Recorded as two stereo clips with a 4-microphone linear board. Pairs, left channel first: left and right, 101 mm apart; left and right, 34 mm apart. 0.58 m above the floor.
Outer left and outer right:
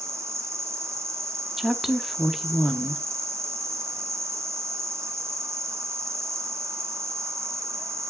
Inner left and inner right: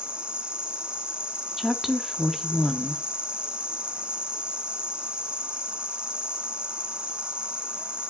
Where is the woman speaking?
Centre (ahead or behind), 0.7 m.